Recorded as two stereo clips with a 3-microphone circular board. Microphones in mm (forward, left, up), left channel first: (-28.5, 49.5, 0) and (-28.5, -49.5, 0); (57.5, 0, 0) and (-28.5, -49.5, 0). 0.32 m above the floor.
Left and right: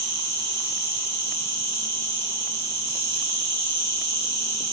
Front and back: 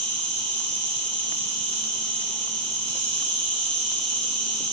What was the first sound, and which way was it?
An insect, 40° right.